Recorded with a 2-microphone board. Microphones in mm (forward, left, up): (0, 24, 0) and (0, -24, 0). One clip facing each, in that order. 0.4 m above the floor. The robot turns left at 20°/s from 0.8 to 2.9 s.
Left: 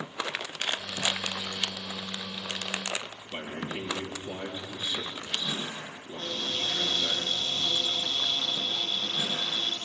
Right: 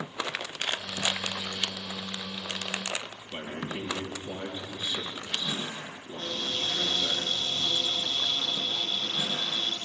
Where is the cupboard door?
Centre (ahead or behind), 8 m.